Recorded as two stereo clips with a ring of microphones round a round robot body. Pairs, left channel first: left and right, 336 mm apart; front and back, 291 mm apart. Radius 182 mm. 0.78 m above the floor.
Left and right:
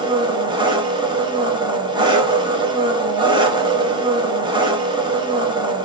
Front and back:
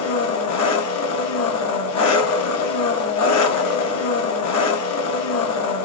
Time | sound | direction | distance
0.0 | an engine running | 15° right | 0.8 m